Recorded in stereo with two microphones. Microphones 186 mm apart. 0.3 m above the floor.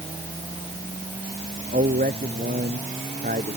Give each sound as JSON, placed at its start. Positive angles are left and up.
{"t": 1.7, "sound": "a man speaking", "side_deg": -50}